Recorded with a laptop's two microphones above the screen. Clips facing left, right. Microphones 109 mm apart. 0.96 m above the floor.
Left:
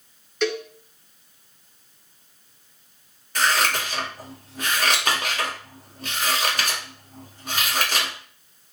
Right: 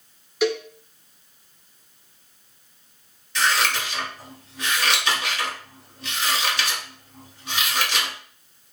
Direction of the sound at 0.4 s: 5° right (ahead or behind).